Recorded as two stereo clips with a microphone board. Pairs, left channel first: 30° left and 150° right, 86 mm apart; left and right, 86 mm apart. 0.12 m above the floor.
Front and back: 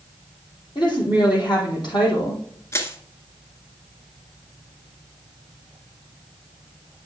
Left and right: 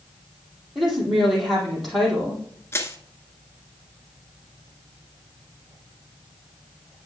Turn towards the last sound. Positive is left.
turn(degrees=60)